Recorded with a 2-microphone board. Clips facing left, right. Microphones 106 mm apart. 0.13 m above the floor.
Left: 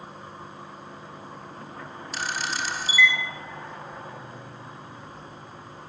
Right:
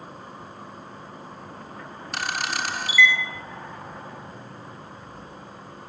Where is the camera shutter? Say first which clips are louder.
Right 2 dB; 60° right (ahead or behind), 1.0 m.